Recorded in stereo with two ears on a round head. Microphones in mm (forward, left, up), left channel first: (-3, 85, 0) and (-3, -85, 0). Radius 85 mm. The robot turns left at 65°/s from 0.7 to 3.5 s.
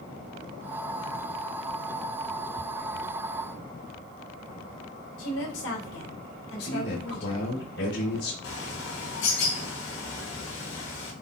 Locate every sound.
5.2 s a woman speaking: 70° left (ahead or behind), 5 m
6.6 s a man speaking: 55° left (ahead or behind), 4.5 m
8.4 s a bird: 70° left (ahead or behind), 5.5 m